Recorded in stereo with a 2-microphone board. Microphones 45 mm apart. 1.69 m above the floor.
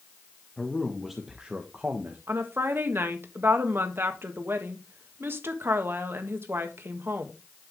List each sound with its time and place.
0.6 s a man speaking: 10° left (ahead or behind), 1.5 m; by 2.2 s 50° right (ahead or behind), 1.4 m
2.3 s a woman speaking: 60° right (ahead or behind), 1.6 m